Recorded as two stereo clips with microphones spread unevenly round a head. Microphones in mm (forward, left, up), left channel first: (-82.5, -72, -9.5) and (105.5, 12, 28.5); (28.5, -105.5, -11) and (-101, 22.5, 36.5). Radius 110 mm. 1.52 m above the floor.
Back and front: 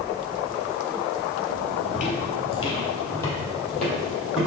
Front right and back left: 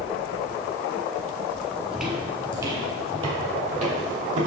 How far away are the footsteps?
About 1.6 m.